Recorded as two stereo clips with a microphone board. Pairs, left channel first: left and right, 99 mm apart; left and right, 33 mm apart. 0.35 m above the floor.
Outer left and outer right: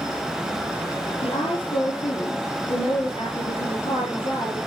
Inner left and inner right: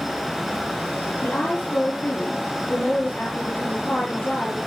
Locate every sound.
1.2 s a woman speaking: 75° left (ahead or behind), 7 m